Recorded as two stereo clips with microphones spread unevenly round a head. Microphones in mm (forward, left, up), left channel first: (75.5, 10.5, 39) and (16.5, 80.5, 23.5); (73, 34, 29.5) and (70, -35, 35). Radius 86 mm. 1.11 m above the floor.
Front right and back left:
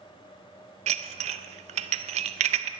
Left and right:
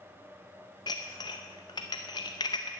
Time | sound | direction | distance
0.9 | dishes clattering | 150° left | 0.5 m